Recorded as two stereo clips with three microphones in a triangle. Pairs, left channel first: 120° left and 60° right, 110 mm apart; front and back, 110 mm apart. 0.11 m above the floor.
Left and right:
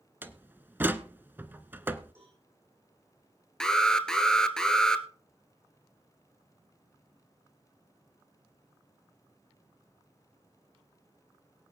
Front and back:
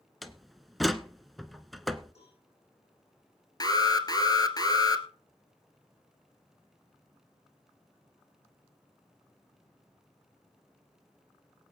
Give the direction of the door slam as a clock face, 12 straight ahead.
3 o'clock.